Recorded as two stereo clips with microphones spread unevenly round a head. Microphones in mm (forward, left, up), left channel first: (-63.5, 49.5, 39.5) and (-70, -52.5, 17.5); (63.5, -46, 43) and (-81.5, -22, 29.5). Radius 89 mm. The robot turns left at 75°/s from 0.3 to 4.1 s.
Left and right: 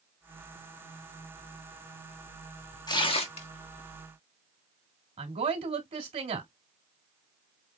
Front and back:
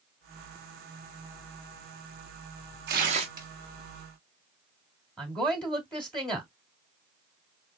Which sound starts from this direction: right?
A woman speaking, at 5.2 s.